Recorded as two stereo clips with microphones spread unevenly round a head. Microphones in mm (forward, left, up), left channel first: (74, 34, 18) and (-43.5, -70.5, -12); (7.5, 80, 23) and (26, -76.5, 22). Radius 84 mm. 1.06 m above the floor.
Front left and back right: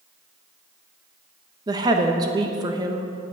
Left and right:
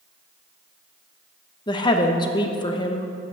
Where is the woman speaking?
160° left, 1.0 m.